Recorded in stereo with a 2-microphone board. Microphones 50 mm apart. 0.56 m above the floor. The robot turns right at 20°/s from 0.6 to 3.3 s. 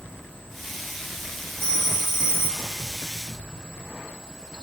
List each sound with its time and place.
1.6 s a phone ringing: 40° left (ahead or behind), 2.5 m; by 2.7 s 60° left (ahead or behind), 2.5 m